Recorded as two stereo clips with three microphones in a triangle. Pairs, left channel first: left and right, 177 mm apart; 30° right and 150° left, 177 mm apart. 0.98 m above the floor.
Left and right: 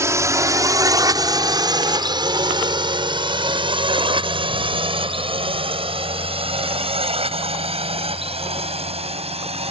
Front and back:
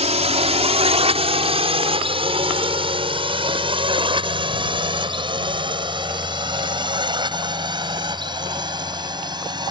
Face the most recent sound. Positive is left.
turn(degrees=-145)